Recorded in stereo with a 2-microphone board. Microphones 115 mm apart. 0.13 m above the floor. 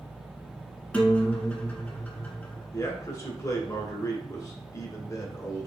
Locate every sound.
0.9 s a guitar: 15° left (ahead or behind), 1.1 m
2.7 s a man speaking: 30° left (ahead or behind), 1.3 m